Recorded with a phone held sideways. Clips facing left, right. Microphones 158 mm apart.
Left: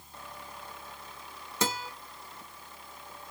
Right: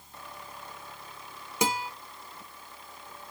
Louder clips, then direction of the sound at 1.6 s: Right 3 dB; 15° right (ahead or behind).